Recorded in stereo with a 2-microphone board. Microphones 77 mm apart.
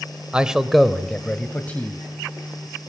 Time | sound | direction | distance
0.3 | a man speaking | 15° right (ahead or behind) | 1.0 m